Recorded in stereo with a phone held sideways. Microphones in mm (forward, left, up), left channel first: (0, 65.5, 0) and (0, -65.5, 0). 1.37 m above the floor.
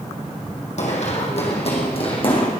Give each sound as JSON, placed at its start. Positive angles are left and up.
{"t": 0.8, "sound": "running footsteps", "side_deg": 60, "distance_m": 3.0}